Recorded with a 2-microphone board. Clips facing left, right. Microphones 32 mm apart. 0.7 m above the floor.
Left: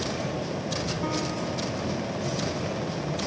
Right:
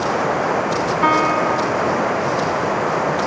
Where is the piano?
70° right (ahead or behind).